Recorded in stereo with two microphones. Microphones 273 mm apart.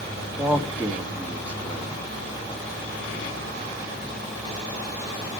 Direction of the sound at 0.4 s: 5° right (ahead or behind).